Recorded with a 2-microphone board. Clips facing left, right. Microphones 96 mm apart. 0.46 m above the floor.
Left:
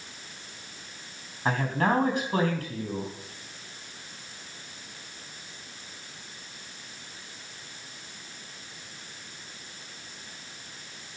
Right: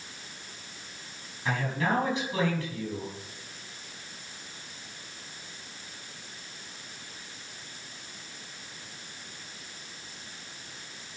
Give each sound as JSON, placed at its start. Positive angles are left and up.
{"t": 1.4, "sound": "a man speaking", "side_deg": 50, "distance_m": 4.0}